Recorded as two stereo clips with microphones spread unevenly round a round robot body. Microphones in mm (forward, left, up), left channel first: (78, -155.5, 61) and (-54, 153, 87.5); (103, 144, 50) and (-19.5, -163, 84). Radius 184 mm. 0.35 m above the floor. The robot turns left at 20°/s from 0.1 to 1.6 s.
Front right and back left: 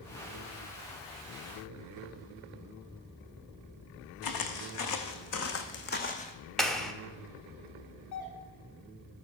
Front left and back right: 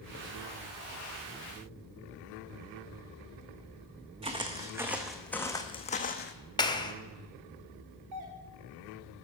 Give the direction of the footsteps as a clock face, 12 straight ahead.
1 o'clock.